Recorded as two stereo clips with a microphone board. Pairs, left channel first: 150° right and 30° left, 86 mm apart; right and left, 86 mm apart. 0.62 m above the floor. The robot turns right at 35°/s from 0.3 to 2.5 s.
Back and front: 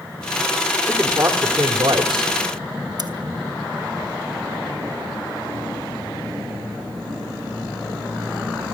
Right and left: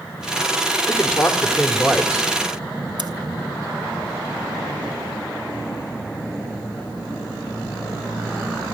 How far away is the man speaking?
About 2 m.